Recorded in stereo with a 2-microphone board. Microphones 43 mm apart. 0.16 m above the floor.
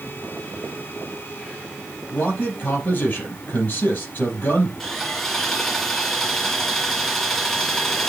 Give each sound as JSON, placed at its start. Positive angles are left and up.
{"t": 2.1, "sound": "a man speaking", "side_deg": 45, "distance_m": 5.0}
{"t": 4.8, "sound": "sawing", "side_deg": 5, "distance_m": 1.5}